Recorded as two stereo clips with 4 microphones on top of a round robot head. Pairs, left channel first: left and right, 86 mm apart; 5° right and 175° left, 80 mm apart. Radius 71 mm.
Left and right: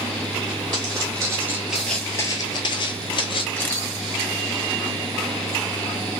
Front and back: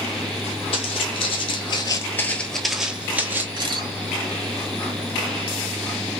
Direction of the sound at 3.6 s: 160° left.